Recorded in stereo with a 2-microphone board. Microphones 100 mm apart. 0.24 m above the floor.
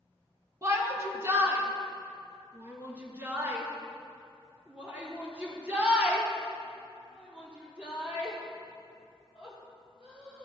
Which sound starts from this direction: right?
A shout, at 0.6 s.